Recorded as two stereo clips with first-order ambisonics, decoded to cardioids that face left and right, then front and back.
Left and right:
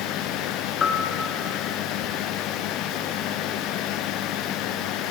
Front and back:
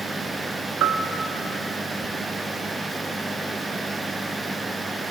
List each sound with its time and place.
0.8 s a bell: 150° left, 0.7 m